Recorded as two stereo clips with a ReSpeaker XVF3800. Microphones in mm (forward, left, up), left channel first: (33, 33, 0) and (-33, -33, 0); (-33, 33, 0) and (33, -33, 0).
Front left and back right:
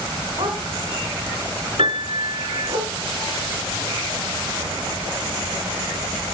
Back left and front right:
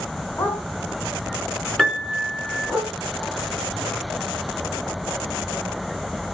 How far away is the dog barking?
About 3 m.